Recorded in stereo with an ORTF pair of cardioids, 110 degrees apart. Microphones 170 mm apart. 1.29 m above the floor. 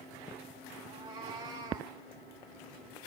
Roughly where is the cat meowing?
Ahead right.